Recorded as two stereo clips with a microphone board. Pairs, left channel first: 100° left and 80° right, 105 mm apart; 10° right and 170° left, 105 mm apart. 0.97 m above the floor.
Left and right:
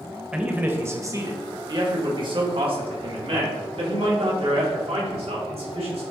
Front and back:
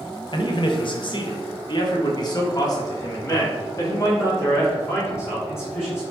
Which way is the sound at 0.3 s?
5° right.